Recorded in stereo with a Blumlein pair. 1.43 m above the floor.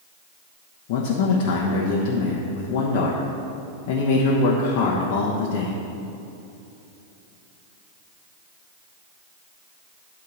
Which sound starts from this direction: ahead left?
A man speaking, at 0.9 s.